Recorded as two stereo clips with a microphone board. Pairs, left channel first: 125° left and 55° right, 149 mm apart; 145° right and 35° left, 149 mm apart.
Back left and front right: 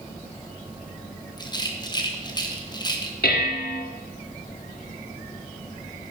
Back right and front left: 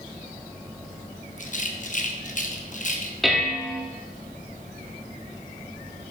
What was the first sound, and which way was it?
A rattle, 175° right.